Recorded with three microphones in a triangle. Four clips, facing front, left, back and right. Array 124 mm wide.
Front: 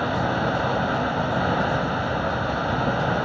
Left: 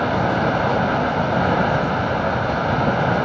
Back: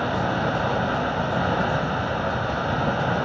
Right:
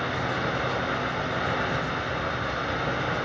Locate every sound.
0.0 s running water: 90° left, 0.8 m